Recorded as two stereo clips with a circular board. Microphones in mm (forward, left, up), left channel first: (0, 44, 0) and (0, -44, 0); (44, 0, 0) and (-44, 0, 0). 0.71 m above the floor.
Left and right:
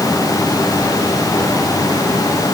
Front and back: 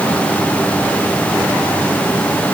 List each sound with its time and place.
Only background noise.